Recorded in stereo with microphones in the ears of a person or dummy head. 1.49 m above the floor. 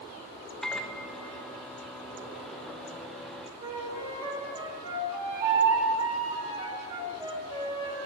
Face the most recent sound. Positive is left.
turn(degrees=-30)  # may be behind; listen again after turning